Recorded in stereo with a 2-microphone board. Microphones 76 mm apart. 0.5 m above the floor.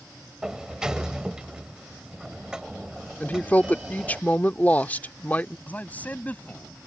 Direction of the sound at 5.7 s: 20° left (ahead or behind).